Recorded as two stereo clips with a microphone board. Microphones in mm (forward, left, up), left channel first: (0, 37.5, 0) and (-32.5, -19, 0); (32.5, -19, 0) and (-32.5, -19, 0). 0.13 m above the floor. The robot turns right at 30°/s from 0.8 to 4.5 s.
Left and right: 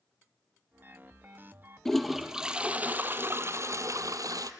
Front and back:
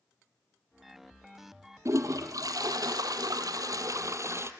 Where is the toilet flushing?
145° left, 0.9 m; by 4.5 s 135° right, 0.9 m.